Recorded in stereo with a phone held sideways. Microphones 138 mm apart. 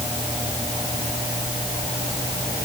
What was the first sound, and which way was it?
Only background noise.